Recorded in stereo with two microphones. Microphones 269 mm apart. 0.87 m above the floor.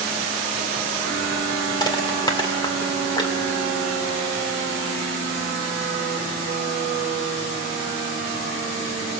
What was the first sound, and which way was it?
Crushing, 15° left (ahead or behind).